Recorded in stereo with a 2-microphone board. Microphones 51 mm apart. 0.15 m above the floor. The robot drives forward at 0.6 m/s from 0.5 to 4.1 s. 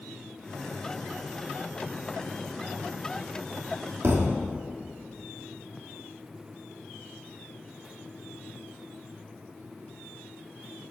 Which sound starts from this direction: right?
A thud, at 4.0 s.